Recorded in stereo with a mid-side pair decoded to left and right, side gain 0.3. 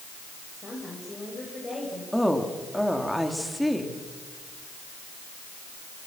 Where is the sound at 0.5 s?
40° left, 8.5 m.